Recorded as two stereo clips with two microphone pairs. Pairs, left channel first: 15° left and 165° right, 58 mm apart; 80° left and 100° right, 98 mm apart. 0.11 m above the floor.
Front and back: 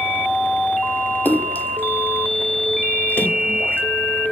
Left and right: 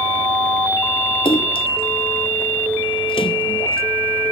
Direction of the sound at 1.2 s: 70° left.